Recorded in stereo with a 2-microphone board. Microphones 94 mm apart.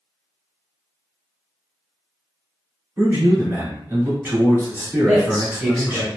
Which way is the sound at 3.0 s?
20° right (ahead or behind).